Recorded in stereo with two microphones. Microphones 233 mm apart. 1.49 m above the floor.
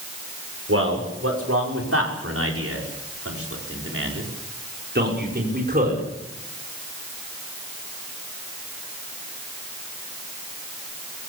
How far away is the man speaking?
About 6.5 m.